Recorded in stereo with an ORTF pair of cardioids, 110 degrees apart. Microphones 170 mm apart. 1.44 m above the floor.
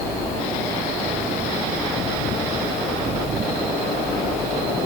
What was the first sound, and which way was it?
Only background noise.